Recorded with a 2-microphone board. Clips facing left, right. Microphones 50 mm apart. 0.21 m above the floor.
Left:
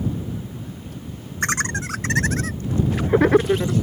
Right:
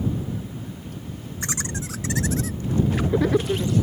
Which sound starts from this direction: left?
Laughter, at 1.4 s.